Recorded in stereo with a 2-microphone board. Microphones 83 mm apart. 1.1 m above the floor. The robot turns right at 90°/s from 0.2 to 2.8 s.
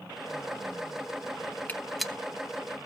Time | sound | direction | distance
1.7 | a gunshot | 20° left (ahead or behind) | 0.7 m